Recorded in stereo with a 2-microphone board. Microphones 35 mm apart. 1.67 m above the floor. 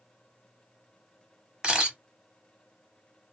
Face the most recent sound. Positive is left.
turn(degrees=-20)  # may be behind; listen again after turning